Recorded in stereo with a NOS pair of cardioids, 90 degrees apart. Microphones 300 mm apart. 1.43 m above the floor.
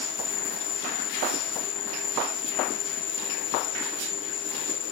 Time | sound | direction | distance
0.0 | an insect | 70° left | ?